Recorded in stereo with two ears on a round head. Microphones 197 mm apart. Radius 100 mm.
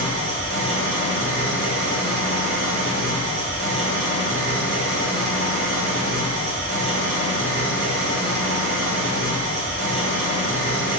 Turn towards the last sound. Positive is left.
turn(degrees=-55)  # may be behind; listen again after turning